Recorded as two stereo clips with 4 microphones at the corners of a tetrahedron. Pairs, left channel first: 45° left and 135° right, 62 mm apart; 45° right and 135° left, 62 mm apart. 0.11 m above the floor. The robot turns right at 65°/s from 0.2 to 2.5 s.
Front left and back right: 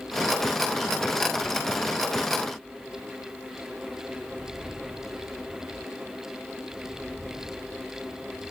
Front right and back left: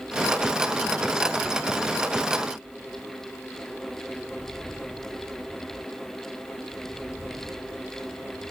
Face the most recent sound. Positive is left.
No sound to turn to.